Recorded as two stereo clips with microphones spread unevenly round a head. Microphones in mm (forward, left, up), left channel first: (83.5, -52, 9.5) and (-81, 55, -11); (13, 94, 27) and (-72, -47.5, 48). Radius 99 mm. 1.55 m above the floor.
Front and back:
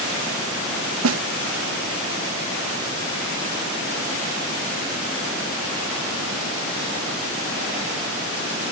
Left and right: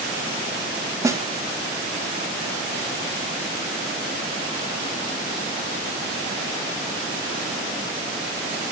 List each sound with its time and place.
1.0 s a snare drum: 165° left, 0.9 m